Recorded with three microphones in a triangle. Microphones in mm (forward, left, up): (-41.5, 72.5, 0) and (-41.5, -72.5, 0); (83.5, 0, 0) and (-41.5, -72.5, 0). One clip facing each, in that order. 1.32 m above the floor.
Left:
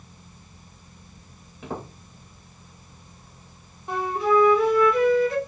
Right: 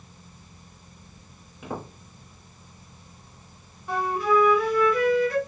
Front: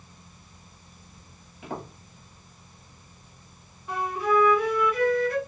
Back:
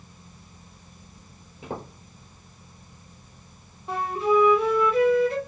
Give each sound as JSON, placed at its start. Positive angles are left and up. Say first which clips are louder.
{"t": 1.6, "sound": "footsteps", "louder": "left 1 dB, back 1 dB", "azimuth_deg": -175, "distance_m": 1.6}
{"t": 3.9, "sound": "a flute", "louder": "left 1 dB, back 2 dB", "azimuth_deg": 155, "distance_m": 0.8}